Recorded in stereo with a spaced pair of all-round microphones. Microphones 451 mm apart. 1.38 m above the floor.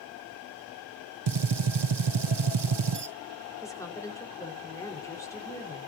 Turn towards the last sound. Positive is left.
turn(degrees=5)  # may be behind; listen again after turning